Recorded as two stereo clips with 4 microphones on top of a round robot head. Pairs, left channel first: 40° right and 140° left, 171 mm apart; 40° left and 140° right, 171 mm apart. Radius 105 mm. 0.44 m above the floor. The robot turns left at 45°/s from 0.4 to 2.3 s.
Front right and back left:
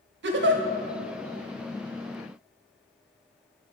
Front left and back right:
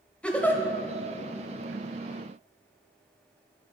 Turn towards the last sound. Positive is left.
turn(degrees=40)